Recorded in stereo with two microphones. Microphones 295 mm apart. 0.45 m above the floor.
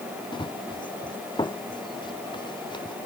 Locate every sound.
0.3 s running footsteps: 15° left (ahead or behind)